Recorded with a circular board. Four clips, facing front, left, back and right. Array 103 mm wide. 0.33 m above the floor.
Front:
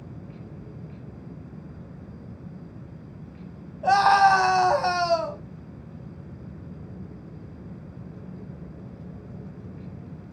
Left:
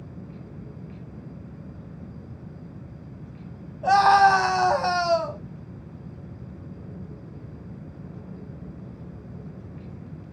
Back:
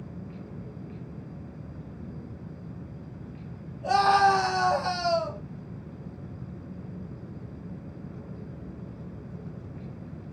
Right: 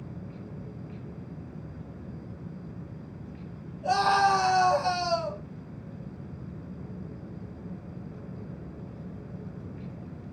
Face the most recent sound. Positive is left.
turn(degrees=40)